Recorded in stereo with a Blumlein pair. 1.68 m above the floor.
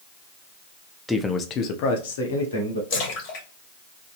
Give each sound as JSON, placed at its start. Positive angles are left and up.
{"t": 1.1, "sound": "a man speaking", "azimuth_deg": 0, "distance_m": 0.6}
{"t": 2.9, "sound": "a splash", "azimuth_deg": 45, "distance_m": 1.2}